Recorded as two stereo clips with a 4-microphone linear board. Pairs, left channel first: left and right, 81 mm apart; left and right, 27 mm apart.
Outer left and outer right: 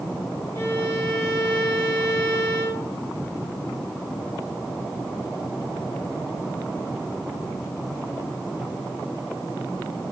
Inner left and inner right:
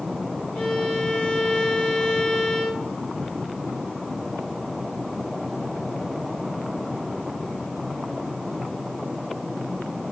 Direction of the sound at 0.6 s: 35° left (ahead or behind).